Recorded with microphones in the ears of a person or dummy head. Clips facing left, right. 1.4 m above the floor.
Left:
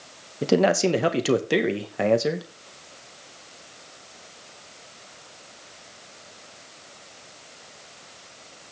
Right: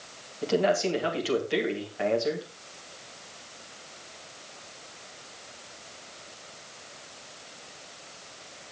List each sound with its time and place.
0.4 s a man speaking: 75° left (ahead or behind), 1.8 m